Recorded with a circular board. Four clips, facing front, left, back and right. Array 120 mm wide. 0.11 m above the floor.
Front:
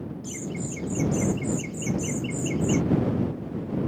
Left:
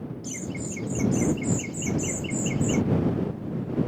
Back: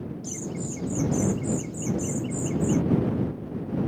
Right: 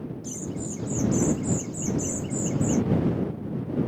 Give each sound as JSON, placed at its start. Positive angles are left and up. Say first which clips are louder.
{"t": 0.2, "sound": "laughter", "louder": "left 1 dB, front 1 dB", "azimuth_deg": 65}